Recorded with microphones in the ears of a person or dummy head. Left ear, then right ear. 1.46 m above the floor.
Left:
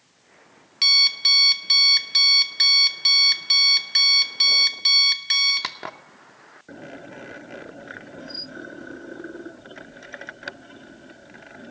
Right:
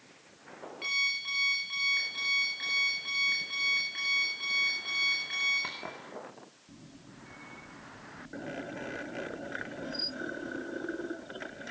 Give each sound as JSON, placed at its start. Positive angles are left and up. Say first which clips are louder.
{"t": 0.8, "sound": "an alarm clock", "louder": "left 14 dB", "side_deg": 50, "distance_m": 0.9}